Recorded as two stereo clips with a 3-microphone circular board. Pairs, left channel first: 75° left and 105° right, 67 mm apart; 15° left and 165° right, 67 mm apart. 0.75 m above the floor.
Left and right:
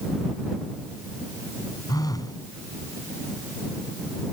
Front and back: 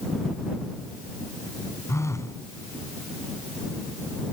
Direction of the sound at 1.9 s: 55° left.